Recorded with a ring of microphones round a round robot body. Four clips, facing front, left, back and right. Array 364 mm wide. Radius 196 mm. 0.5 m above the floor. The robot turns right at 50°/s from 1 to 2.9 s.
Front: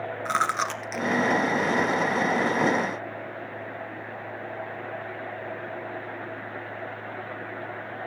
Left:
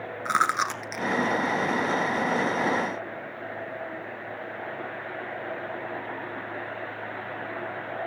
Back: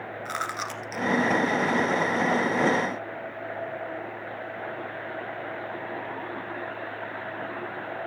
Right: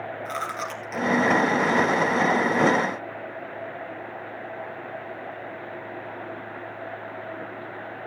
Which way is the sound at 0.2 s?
65° left.